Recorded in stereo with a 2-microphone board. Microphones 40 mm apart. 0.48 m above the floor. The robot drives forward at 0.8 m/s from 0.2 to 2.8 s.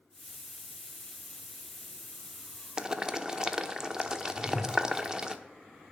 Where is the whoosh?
50° right (ahead or behind), 6.5 m.